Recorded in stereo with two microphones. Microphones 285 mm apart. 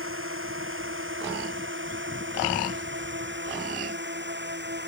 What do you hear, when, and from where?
0.0 s a drone: 50° right (ahead or behind); by 4.9 s 40° right (ahead or behind)